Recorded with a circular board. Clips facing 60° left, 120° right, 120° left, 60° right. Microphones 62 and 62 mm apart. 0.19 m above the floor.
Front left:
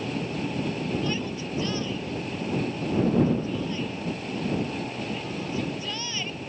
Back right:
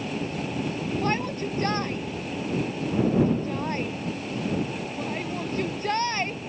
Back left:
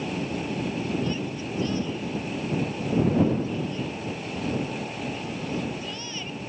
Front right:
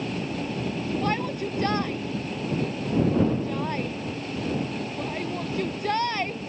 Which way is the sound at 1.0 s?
85° right.